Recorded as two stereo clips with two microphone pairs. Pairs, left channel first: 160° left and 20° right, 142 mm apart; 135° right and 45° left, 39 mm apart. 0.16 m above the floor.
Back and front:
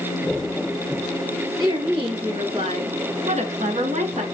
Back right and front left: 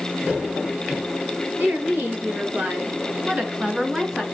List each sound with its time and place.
1.6 s a woman speaking: 35° left, 3 m; by 4.2 s 30° right, 2.5 m